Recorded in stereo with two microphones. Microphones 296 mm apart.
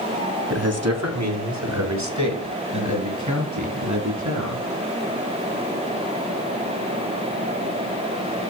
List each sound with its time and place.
0.5 s a man speaking: 55° right (ahead or behind), 2 m; by 4.6 s 75° right (ahead or behind), 8 m